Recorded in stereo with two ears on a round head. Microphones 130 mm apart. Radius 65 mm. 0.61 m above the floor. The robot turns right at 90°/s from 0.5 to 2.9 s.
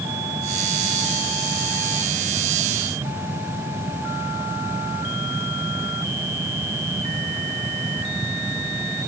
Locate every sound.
Only background noise.